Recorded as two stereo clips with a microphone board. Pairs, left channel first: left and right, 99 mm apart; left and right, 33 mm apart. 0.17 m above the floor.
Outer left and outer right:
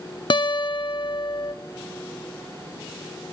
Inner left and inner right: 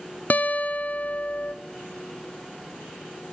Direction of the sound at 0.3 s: 55° left (ahead or behind).